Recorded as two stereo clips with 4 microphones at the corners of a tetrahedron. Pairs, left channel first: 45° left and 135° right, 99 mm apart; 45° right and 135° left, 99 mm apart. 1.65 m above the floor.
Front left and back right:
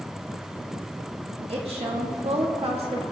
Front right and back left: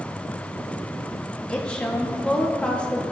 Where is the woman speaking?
125° right, 1.8 m.